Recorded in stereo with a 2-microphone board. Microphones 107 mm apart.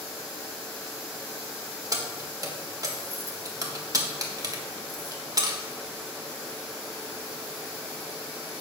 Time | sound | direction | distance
1.9 | keys jangling | 35° right (ahead or behind) | 1.0 m